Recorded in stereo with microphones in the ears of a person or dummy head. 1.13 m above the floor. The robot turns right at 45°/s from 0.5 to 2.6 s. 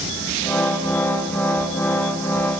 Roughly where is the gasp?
No gasp in this recording.